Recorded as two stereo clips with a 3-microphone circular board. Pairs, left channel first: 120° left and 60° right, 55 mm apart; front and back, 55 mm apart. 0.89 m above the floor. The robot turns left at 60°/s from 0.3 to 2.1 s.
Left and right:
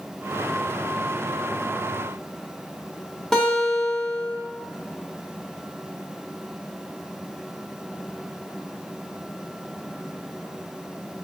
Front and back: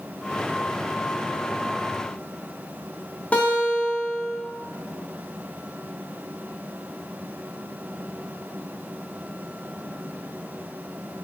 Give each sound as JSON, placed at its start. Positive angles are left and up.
{"t": 3.3, "sound": "a guitar", "azimuth_deg": 40, "distance_m": 0.7}